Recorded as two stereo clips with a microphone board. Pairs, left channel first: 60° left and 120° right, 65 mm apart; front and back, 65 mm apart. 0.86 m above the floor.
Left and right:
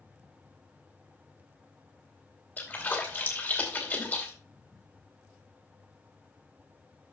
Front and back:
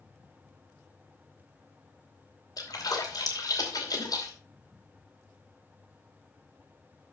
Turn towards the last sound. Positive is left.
turn(degrees=0)